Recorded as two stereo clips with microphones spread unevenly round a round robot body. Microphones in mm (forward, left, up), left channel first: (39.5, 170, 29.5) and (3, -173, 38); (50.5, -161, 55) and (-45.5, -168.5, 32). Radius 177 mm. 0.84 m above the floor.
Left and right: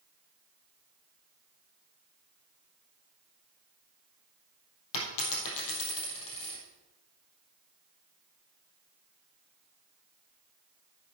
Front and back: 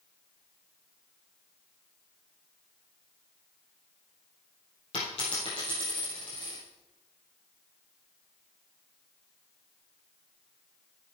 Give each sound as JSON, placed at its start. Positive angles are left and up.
{"t": 4.9, "sound": "a dropped coin", "azimuth_deg": 50, "distance_m": 3.0}